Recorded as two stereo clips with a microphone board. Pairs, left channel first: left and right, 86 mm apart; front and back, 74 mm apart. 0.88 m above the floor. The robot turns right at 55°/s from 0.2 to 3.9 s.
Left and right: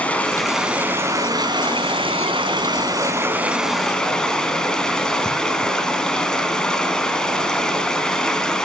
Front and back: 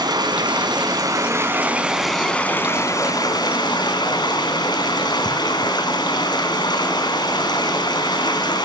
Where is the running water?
165° left, 3.5 m; by 8.6 s 10° left, 3.5 m.